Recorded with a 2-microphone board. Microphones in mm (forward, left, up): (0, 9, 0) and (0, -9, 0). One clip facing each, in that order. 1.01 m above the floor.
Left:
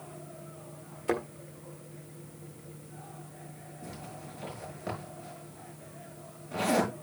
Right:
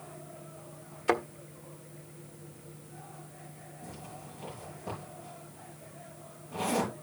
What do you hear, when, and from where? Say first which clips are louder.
1.1 s a thud: right 2 dB; 25° right (ahead or behind), 1.3 m
3.8 s a zipper: left 2 dB; 40° left (ahead or behind), 6 m